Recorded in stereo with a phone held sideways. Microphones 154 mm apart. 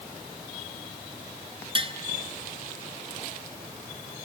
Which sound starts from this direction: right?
Tapping, at 1.8 s.